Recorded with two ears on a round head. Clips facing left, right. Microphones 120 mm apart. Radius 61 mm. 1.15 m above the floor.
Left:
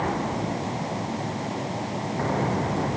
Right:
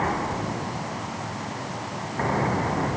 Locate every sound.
Only background noise.